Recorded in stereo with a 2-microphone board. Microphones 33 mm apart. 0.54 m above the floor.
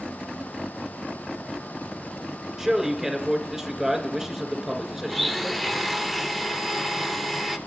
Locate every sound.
2.6 s a man speaking: 20° right (ahead or behind), 2.0 m
5.1 s a blender: centre (ahead or behind), 0.6 m